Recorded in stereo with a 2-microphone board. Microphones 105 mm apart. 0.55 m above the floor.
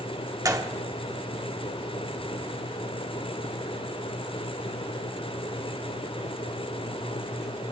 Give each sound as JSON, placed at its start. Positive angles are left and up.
{"t": 0.5, "sound": "a gunshot", "side_deg": -35, "distance_m": 1.3}